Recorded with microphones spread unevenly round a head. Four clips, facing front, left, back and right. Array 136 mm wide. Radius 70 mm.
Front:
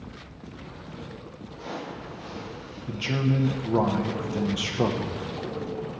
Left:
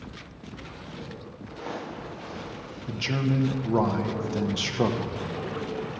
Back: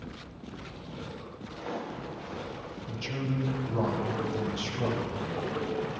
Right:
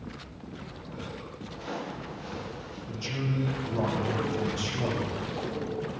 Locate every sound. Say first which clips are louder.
1.5 s footsteps: left 1 dB, even; 110° left, 5.5 m
2.9 s a man speaking: left 6 dB, front 8 dB; 50° left, 1.3 m